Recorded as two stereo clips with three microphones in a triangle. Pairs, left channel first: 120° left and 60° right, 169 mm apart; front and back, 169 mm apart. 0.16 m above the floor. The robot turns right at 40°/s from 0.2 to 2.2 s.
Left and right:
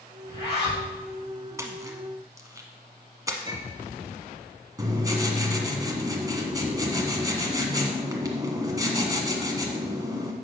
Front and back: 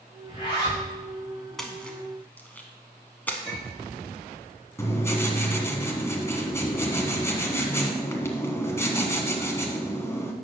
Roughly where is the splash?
Right.